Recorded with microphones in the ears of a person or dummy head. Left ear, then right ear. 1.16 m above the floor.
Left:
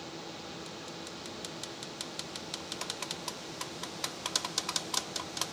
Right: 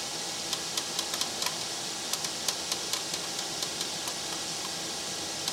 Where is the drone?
60° right (ahead or behind).